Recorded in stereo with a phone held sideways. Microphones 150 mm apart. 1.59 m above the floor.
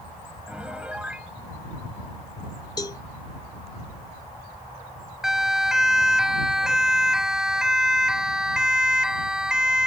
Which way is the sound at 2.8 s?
25° left (ahead or behind).